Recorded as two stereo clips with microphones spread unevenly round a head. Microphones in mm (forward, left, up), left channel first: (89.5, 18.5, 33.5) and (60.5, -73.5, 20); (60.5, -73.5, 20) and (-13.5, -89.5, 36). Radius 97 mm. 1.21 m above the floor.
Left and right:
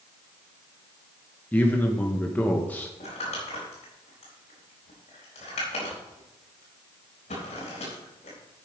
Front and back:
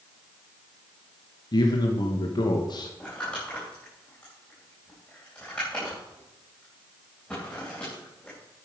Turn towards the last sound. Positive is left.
turn(degrees=100)